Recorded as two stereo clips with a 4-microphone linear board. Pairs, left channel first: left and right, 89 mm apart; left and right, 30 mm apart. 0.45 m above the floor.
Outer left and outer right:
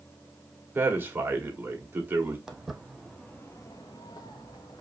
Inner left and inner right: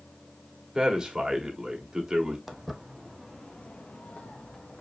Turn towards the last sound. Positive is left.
turn(degrees=45)  # may be behind; listen again after turning